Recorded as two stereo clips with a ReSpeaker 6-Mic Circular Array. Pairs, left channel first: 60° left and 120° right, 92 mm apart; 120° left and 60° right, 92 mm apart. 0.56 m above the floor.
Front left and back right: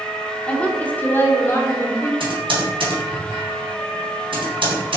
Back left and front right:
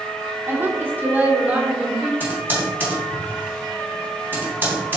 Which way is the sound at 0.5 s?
10° right.